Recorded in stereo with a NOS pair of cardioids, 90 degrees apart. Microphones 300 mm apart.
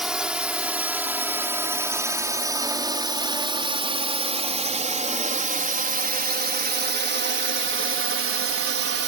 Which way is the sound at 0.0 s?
Straight ahead.